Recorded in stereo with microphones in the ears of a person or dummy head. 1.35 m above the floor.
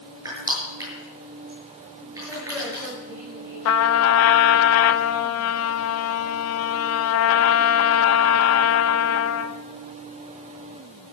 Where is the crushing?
20° right (ahead or behind), 7.5 m.